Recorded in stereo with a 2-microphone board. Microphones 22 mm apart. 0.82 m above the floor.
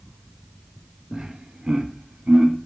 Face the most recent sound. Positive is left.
turn(degrees=-70)  # may be behind; listen again after turning